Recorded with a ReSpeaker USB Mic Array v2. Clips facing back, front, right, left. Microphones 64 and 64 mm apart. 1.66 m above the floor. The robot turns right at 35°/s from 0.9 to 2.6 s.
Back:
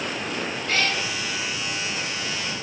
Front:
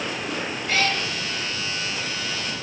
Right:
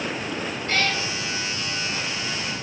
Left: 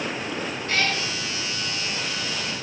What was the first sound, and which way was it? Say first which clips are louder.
A cat meowing: front 2 dB, right 1 dB; 70° right.